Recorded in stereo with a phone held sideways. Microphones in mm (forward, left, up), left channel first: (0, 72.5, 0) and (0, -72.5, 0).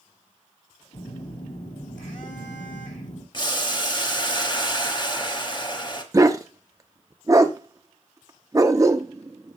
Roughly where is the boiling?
Left.